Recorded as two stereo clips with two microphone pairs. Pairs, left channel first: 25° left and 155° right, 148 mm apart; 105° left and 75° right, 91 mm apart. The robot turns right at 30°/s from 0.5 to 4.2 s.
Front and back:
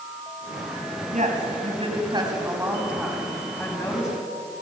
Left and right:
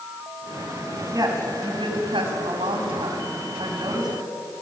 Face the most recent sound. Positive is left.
turn(degrees=-35)